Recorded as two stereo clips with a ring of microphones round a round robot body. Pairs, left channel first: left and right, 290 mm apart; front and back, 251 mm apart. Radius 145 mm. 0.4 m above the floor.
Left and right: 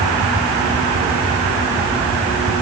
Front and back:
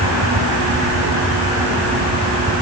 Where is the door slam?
No door slam in this recording.